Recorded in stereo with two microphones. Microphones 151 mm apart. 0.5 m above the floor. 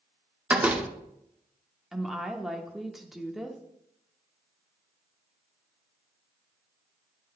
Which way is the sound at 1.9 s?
Centre (ahead or behind).